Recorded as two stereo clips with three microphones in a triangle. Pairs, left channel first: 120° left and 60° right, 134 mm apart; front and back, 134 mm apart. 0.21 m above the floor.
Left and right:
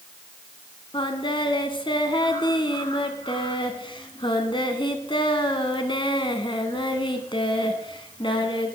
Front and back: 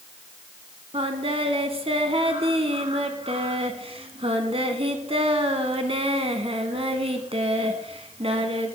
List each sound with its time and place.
0.9 s singing: 160° left, 1.4 m